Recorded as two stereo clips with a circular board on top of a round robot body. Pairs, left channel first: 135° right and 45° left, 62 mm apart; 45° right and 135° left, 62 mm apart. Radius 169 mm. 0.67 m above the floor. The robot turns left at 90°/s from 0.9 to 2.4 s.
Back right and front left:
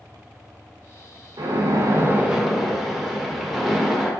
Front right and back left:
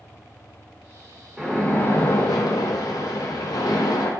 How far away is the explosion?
I don't hear an explosion.